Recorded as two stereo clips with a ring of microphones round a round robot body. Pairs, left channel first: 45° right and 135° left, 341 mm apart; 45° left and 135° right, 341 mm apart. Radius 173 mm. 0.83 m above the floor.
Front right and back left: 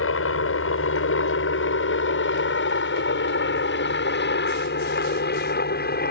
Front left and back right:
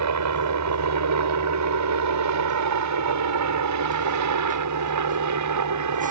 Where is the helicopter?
95° right; by 6.1 s 105° right.